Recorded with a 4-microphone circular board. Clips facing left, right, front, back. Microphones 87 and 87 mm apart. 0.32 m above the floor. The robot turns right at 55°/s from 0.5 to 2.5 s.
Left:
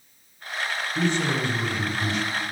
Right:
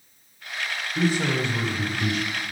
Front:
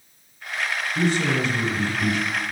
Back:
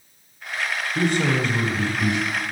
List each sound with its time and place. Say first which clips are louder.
0.9 s a man speaking: right 1 dB, back 1 dB; straight behind, 1.4 m; by 2.3 s 105° right, 1.4 m